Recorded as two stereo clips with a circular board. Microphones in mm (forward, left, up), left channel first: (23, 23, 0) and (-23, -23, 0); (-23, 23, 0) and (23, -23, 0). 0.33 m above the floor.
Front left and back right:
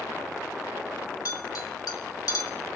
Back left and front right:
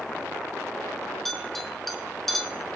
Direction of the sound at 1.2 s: 50° left.